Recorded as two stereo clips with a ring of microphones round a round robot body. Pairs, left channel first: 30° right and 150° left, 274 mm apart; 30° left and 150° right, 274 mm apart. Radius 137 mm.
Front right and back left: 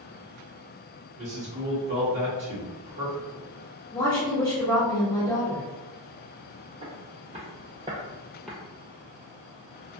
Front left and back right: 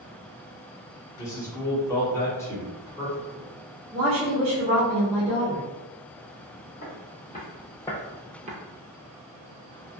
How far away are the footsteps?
About 1.1 m.